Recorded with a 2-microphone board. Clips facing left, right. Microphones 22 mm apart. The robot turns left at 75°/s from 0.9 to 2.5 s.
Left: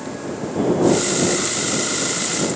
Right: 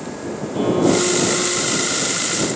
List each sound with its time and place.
0.5 s a violin: 30° right; by 2.0 s 115° right